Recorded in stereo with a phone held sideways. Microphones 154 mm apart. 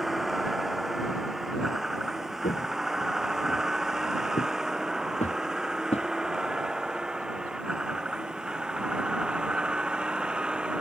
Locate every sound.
0.0 s a vehicle: centre (ahead or behind); by 10.8 s 5° right (ahead or behind)
2.4 s footsteps: 55° left (ahead or behind); by 6.1 s 40° left (ahead or behind)